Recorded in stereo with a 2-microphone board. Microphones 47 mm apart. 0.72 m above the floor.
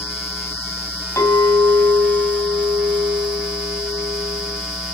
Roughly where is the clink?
Left.